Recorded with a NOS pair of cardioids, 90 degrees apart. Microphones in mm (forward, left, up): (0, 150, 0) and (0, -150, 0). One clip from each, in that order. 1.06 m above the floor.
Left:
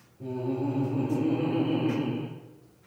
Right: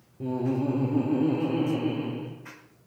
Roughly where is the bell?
I don't hear a bell.